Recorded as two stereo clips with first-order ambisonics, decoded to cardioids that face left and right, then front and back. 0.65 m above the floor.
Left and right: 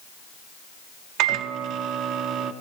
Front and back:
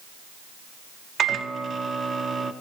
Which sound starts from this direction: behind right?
A microwave, at 1.2 s.